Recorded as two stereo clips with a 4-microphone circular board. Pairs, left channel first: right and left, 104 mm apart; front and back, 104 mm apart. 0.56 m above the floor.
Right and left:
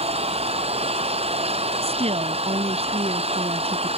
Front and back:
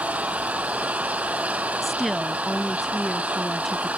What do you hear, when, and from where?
0.0 s an engine running: 100° left
1.8 s a woman speaking: 90° left